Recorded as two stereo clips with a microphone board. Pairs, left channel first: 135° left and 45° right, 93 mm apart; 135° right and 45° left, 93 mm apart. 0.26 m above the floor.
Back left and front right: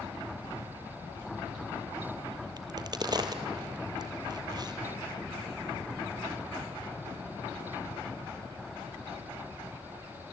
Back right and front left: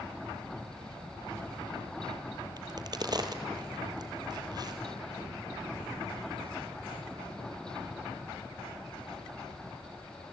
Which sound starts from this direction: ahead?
A crack, at 2.6 s.